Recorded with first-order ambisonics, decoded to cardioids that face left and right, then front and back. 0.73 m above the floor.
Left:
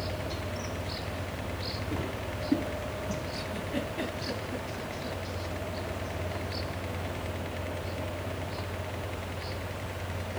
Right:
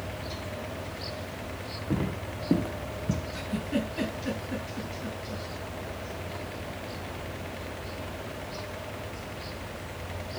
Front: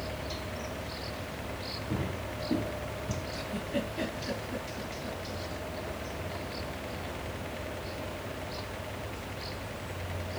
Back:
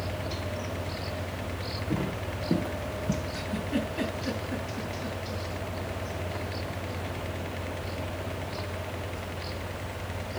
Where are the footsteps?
100° right, 4 m; by 3.2 s 125° right, 2.5 m.